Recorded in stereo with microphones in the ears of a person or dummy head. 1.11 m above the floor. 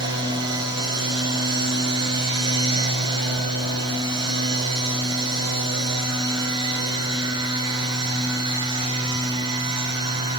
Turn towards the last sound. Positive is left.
turn(degrees=-25)  # may be behind; listen again after turning